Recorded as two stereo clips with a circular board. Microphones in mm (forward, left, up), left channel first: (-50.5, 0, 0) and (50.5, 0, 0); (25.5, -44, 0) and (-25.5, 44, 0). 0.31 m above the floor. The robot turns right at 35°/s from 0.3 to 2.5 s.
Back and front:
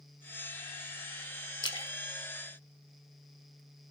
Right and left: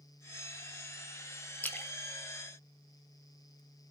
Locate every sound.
1.6 s a splash: 135° right, 1.2 m; by 3.6 s 105° right, 1.2 m